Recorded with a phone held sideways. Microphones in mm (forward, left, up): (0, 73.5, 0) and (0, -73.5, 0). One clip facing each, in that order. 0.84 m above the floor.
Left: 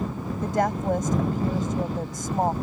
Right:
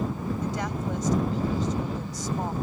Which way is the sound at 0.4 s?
55° left (ahead or behind).